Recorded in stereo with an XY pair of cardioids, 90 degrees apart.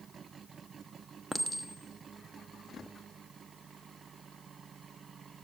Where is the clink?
5° right, 1.0 m.